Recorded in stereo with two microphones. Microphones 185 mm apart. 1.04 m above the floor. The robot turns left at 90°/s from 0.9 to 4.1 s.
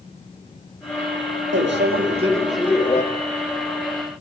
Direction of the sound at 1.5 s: 85° right.